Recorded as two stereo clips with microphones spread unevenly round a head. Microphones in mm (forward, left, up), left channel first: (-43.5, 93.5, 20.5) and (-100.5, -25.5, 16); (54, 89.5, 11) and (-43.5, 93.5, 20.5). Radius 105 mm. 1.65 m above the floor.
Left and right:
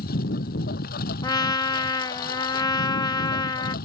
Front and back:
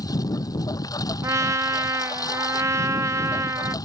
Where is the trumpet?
120° left.